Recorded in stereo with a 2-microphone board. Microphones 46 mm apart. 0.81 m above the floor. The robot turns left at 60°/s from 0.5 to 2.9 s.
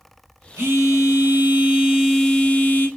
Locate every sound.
0.6 s a phone buzzing: 85° right, 1.7 m; by 2.9 s 140° left, 1.7 m